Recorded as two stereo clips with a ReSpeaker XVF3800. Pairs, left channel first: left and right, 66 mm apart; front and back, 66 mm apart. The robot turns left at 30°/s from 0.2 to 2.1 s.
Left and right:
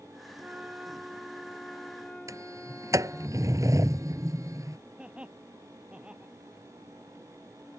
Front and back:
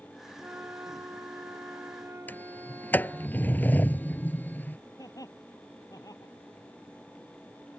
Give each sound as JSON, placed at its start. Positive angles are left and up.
{"t": 0.4, "sound": "a flute", "azimuth_deg": -145}
{"t": 2.3, "sound": "a sliding door", "azimuth_deg": -60}
{"t": 5.0, "sound": "laughter", "azimuth_deg": -15}